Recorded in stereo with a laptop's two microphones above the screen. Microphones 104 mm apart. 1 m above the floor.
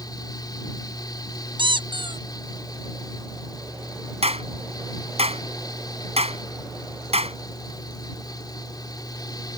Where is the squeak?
50° right (ahead or behind).